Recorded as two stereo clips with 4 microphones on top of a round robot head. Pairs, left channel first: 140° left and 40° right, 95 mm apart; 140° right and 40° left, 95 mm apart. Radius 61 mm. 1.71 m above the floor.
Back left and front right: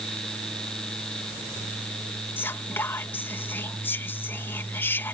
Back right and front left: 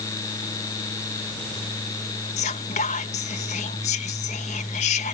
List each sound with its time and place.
2.4 s whispering: 145° right